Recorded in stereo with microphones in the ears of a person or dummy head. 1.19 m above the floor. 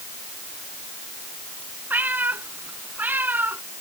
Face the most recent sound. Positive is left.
turn(degrees=-15)  # may be behind; listen again after turning